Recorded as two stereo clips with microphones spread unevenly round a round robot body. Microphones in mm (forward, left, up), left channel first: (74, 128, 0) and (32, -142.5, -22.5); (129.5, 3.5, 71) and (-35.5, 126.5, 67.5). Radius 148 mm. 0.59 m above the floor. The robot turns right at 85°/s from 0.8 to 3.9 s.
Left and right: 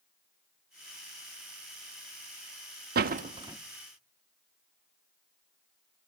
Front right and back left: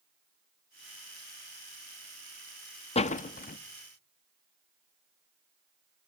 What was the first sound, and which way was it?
A door slam, 85° right.